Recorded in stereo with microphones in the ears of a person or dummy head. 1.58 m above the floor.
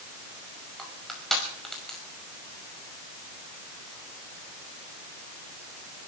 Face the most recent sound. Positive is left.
turn(degrees=0)  # may be behind; listen again after turning